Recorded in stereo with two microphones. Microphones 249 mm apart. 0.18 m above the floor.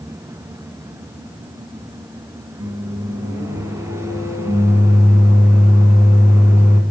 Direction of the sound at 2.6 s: 10° right (ahead or behind).